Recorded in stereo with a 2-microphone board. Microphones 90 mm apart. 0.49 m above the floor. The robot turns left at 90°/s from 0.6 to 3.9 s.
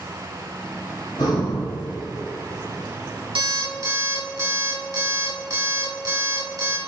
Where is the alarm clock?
90° right, 1.8 m; by 6.8 s 135° right, 1.8 m.